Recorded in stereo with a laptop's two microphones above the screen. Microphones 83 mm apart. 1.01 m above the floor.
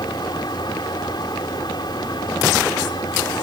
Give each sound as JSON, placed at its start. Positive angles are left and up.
{"t": 0.0, "sound": "a fan", "side_deg": 65}